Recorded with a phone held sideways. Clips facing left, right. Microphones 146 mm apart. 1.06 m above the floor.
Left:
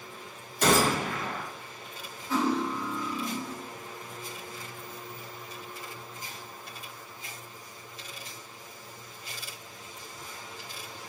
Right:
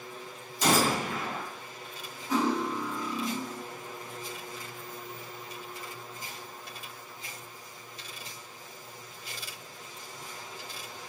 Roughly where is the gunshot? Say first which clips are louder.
Left 2 dB; left.